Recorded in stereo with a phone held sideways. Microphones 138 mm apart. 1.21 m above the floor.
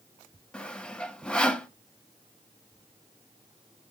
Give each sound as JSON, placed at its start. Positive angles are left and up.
{"t": 0.5, "sound": "sawing", "side_deg": 5, "distance_m": 0.8}